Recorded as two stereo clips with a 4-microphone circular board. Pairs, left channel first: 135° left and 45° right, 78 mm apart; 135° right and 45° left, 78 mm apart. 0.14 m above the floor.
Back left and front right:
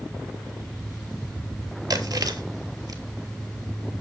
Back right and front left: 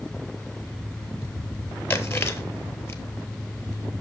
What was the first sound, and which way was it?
Chewing, 80° right.